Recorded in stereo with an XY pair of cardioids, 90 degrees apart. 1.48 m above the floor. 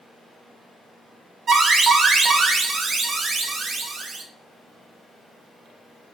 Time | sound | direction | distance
1.5 | an alarm | 55° right | 1.0 m